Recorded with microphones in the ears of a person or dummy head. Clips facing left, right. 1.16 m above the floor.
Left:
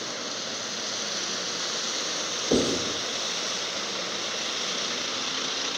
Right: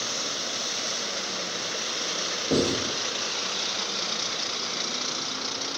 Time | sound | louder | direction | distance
2.5 | writing | even | 35° right (ahead or behind) | 1.2 m